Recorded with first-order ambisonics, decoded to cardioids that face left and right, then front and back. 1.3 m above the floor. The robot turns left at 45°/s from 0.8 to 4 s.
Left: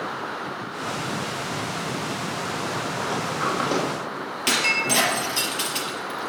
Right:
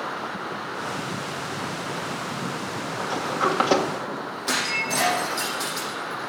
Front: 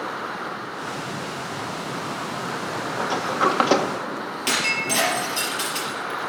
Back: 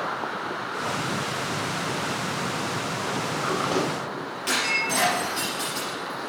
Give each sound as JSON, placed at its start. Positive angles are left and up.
{"t": 3.0, "sound": "a sliding door", "azimuth_deg": 10, "distance_m": 1.9}
{"t": 4.5, "sound": "breaking glass", "azimuth_deg": 65, "distance_m": 4.5}